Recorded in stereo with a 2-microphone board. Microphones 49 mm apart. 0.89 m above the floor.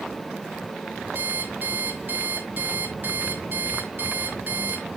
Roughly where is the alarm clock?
Right.